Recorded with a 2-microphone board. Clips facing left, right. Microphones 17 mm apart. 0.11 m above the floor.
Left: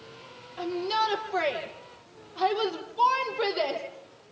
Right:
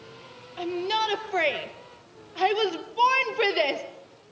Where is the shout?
30° right (ahead or behind), 3 m; by 3.8 s 60° right (ahead or behind), 3 m.